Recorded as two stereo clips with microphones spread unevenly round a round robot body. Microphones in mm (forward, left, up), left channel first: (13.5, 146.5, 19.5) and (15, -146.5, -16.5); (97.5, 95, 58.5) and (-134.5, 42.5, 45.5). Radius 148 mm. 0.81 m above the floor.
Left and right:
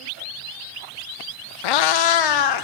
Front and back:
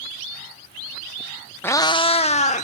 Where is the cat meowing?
95° left, 0.6 m; by 2.6 s 75° left, 1.3 m.